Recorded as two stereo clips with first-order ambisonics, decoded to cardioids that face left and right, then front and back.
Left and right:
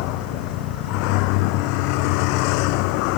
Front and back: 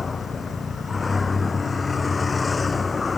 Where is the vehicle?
75° left.